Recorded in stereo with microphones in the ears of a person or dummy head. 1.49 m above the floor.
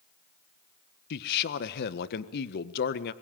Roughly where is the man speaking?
Left.